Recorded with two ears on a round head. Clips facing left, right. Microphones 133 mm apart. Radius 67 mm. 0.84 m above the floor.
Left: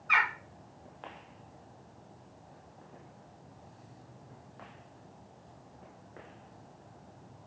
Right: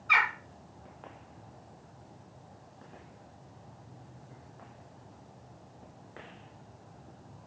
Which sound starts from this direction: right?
A bird, at 0.1 s.